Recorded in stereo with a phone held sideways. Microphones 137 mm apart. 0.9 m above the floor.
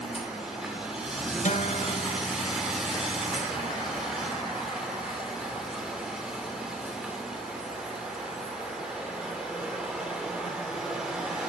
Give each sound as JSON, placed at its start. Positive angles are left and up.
{"t": 0.0, "sound": "a machine running", "side_deg": -5, "distance_m": 2.5}
{"t": 1.4, "sound": "a guitar", "side_deg": 60, "distance_m": 1.3}